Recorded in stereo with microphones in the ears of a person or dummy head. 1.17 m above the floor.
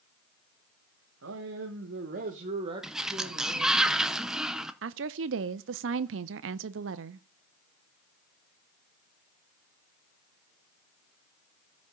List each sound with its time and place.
1.2 s a man speaking: 70° right (ahead or behind), 1.3 m; by 3.8 s centre (ahead or behind), 1.7 m
2.8 s a sliding door: 5° right (ahead or behind), 0.6 m
4.8 s a woman speaking: 60° right (ahead or behind), 0.5 m